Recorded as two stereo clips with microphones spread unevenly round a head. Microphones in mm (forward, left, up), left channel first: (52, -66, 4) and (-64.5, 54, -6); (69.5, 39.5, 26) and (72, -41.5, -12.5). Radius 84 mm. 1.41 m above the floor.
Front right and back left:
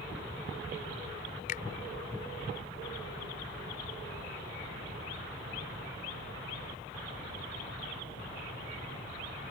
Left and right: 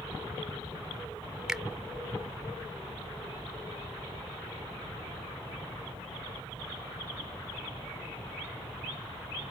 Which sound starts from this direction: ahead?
A finger snap, at 1.5 s.